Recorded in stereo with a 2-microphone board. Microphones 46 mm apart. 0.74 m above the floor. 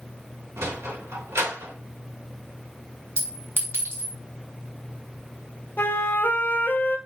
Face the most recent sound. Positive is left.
turn(degrees=45)  # may be behind; listen again after turning